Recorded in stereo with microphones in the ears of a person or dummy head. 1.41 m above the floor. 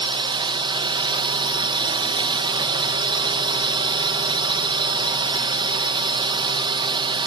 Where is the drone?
25° right (ahead or behind).